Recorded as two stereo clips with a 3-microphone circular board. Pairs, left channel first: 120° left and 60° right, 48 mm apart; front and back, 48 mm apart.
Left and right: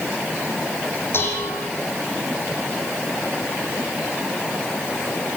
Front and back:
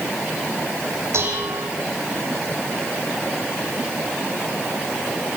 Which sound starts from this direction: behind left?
Dishes clattering, at 1.1 s.